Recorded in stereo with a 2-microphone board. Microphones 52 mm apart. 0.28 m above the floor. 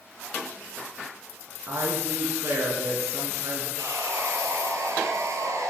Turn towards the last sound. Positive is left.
turn(degrees=-80)